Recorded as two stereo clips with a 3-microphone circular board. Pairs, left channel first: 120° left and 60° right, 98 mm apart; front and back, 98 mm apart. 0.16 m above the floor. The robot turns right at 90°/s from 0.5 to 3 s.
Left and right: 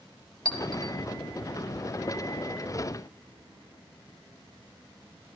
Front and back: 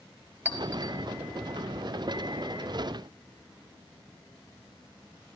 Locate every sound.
0.5 s a clink: 110° left, 2.5 m; by 0.9 s 150° left, 2.5 m